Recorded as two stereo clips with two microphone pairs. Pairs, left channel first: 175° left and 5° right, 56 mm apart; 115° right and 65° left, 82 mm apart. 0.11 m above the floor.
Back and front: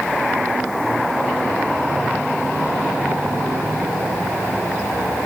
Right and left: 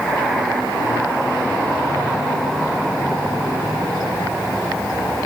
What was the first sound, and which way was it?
Only background noise.